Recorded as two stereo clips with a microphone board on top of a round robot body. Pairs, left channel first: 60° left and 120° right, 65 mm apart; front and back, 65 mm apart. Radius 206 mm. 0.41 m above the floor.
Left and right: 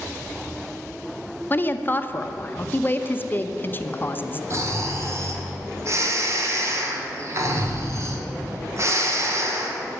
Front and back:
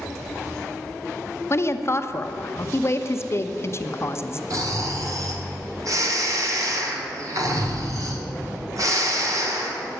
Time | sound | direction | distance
1.5 | a woman speaking | 20° left | 0.9 m
4.5 | snoring | 155° right | 2 m